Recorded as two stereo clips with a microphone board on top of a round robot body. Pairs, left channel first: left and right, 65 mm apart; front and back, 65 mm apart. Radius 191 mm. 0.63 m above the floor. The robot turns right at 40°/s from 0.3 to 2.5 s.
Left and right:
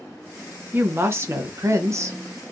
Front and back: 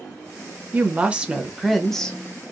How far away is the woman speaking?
About 0.9 m.